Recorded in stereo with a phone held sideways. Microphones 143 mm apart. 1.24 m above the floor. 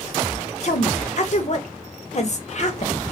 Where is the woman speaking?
50° left (ahead or behind), 0.5 m.